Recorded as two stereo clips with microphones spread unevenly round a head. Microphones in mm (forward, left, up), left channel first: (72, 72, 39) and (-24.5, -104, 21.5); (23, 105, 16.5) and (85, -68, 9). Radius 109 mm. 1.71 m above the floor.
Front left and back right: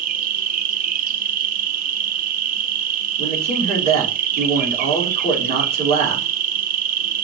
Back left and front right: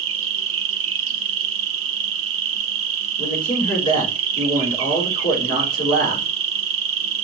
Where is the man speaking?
Straight behind, 5 m.